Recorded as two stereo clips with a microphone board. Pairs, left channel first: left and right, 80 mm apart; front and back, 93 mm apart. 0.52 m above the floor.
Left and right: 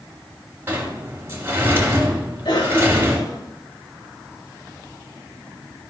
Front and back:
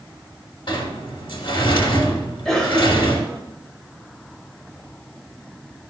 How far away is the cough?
About 2 m.